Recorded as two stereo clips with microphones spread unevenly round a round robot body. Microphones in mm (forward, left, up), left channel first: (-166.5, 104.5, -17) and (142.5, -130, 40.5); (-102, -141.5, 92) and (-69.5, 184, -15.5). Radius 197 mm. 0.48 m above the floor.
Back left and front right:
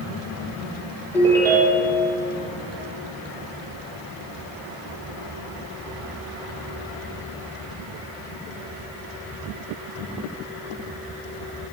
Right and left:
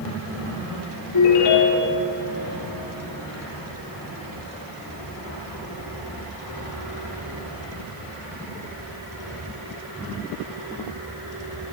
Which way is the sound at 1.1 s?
135° right.